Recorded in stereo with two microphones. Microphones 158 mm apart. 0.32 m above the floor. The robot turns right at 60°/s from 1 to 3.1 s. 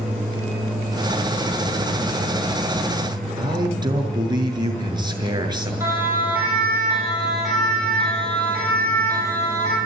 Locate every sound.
3.4 s a man speaking: 30° right (ahead or behind), 6 m
5.8 s a siren: 15° right (ahead or behind), 10 m; by 9.8 s 20° left (ahead or behind), 10 m